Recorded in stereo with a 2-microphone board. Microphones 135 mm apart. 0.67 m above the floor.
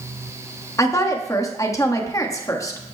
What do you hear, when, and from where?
0.8 s a woman speaking: 25° left (ahead or behind), 1.1 m